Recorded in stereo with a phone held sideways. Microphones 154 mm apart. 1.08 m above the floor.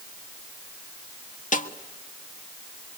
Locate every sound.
1.5 s a snare drum: 55° left (ahead or behind), 1.3 m